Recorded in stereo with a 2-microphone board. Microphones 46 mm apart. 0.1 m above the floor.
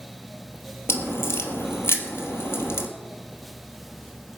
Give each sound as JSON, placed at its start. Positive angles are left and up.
{"t": 0.9, "sound": "a crack", "side_deg": 65, "distance_m": 1.8}